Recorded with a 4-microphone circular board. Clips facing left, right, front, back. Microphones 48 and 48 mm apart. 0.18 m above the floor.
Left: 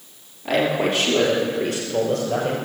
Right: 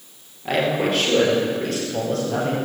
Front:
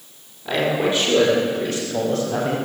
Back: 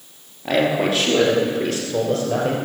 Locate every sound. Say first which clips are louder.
0.5 s a man speaking: even, back 2 dB; 175° right, 4 m; by 2.6 s 155° left, 4.5 m